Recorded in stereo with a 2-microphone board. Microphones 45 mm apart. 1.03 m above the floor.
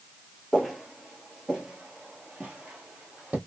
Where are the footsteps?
5° right (ahead or behind), 1.0 m; by 3.4 s 30° right (ahead or behind), 1.6 m.